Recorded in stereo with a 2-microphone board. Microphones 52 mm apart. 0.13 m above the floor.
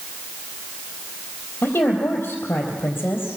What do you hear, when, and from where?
1.6 s a woman speaking: 50° left (ahead or behind), 4 m